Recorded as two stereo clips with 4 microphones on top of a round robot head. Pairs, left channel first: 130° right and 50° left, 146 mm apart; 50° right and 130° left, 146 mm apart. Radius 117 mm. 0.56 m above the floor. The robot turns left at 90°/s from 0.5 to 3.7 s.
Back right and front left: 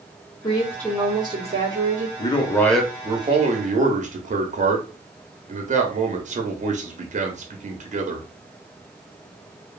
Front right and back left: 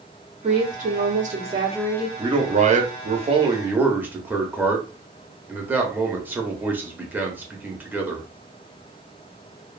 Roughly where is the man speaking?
Behind.